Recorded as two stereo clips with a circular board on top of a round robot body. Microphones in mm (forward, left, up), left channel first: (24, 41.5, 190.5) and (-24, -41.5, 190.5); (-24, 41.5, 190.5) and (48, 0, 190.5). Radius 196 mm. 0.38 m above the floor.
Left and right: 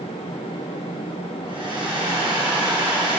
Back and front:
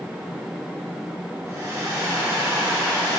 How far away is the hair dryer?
About 4.5 m.